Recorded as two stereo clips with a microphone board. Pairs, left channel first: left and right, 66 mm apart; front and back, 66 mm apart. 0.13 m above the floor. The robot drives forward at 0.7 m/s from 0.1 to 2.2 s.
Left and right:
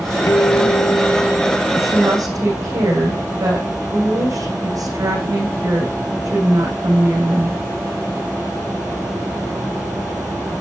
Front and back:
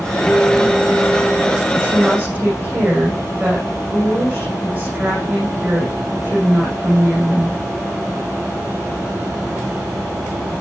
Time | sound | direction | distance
0.3 | a guitar | 80° left | 0.7 m
1.7 | a woman speaking | 120° right | 7.5 m